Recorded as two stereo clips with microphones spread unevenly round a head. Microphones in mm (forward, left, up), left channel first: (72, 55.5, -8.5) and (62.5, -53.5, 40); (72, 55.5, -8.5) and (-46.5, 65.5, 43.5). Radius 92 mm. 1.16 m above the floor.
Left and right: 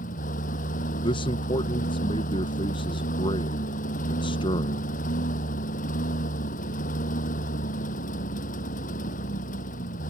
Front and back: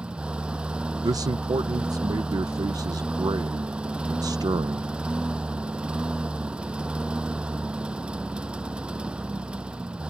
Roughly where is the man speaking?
Left.